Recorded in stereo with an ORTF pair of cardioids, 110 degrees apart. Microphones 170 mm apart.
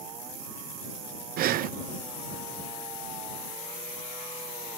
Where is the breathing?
65° right.